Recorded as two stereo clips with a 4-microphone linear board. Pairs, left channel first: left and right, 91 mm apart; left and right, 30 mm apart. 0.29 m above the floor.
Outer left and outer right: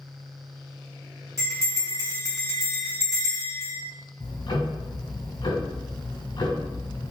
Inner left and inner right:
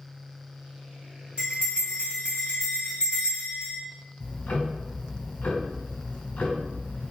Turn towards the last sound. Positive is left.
turn(degrees=60)  # may be behind; listen again after turning